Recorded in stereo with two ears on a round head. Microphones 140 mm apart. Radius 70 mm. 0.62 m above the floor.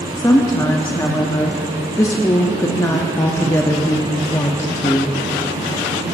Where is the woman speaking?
20° left (ahead or behind), 0.6 m.